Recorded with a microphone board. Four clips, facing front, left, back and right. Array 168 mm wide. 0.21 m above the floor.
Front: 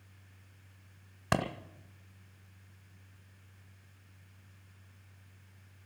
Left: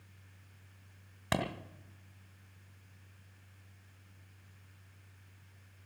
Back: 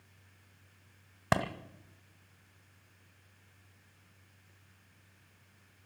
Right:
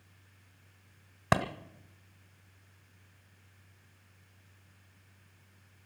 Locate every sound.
1.3 s a clap: 120° right, 1.4 m